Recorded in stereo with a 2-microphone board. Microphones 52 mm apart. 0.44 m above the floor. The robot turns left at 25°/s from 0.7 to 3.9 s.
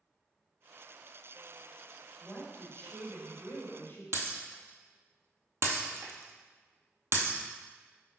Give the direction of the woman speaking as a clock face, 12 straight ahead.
6 o'clock.